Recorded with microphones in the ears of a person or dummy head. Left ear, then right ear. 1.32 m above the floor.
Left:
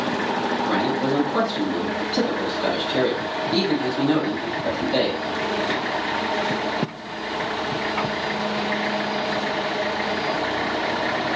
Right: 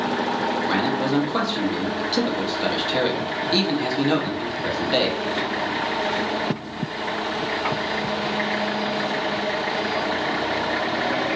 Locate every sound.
0.7 s a man speaking: 45° right (ahead or behind), 1.6 m